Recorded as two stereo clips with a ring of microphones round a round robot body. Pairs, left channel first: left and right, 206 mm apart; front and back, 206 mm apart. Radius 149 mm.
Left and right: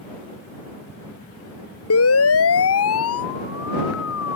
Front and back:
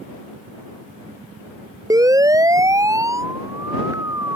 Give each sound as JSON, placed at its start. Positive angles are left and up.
{"t": 1.9, "sound": "a siren", "azimuth_deg": 105}